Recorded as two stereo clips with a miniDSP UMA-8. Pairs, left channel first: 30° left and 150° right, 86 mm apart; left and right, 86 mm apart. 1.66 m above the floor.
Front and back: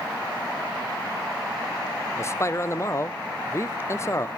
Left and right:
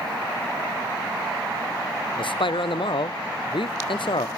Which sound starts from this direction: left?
A man speaking, at 2.2 s.